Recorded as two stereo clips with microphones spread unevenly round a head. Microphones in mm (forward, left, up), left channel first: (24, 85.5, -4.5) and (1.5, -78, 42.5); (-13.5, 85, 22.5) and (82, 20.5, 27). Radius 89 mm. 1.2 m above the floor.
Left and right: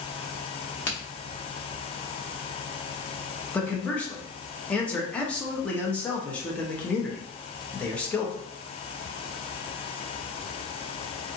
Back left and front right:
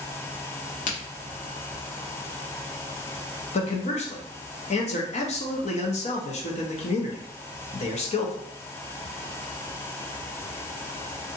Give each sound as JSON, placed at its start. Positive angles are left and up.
{"t": 0.9, "sound": "a crack", "azimuth_deg": 170, "distance_m": 1.0}
{"t": 3.5, "sound": "a man speaking", "azimuth_deg": 155, "distance_m": 0.9}